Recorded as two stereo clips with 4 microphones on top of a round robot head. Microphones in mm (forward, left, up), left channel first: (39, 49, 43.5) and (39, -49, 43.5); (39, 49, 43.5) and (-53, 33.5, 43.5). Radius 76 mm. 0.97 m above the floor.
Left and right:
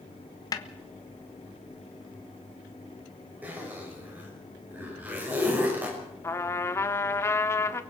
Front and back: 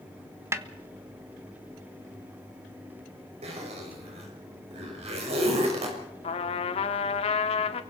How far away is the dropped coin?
No dropped coin in this recording.